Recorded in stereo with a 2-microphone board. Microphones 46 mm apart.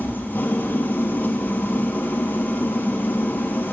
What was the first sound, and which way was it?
An engine running, 40° left (ahead or behind).